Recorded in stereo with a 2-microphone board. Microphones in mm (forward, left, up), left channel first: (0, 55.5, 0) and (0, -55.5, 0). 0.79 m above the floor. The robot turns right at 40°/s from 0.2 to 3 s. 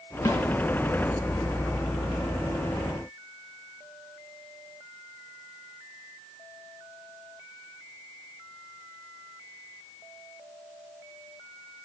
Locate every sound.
0.2 s a snare drum: 30° left (ahead or behind), 1.6 m; by 0.4 s 20° left (ahead or behind), 1.6 m